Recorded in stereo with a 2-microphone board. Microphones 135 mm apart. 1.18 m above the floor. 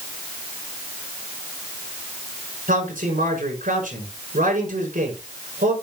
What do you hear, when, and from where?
2.7 s a man speaking: 80° right, 5.5 m